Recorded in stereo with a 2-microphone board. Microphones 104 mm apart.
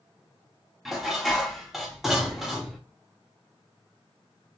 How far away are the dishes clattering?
About 0.6 m.